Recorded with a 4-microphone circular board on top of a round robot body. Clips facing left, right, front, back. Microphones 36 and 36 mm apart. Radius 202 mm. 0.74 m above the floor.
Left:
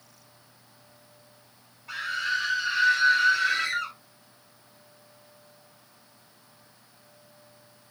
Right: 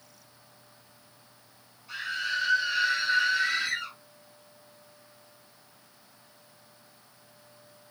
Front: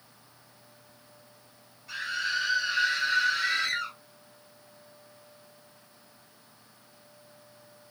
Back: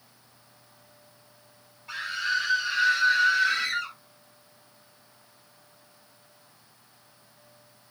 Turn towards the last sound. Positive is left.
turn(degrees=95)